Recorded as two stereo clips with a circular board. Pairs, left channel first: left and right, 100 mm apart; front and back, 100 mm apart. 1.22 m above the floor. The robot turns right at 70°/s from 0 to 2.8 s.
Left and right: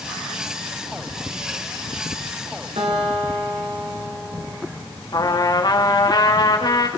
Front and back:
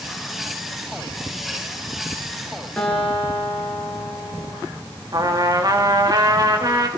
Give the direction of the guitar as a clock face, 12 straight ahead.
3 o'clock.